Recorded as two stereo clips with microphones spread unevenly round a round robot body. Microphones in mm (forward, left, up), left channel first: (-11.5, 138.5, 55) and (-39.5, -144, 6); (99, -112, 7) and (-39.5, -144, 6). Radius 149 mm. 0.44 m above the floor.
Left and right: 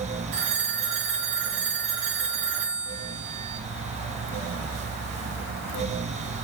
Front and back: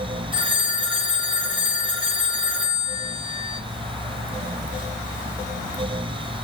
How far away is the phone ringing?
About 3 m.